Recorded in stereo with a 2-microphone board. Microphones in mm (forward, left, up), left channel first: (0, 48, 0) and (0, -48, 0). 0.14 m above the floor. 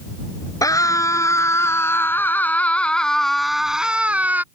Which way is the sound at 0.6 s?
35° left (ahead or behind).